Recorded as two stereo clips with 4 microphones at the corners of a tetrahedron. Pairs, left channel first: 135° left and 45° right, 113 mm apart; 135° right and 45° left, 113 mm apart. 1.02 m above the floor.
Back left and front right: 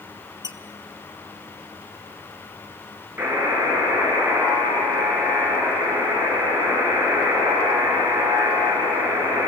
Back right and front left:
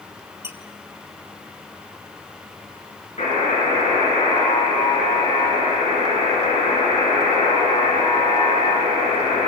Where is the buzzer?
115° right, 6.5 m.